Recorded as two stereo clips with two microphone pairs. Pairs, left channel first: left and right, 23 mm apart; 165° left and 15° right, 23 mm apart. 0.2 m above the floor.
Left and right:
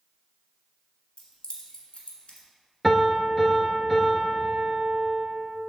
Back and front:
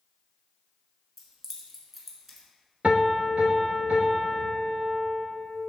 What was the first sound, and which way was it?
Keys jangling, 65° left.